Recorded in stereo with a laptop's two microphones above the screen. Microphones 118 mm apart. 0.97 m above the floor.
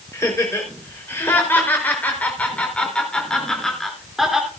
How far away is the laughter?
About 4.5 m.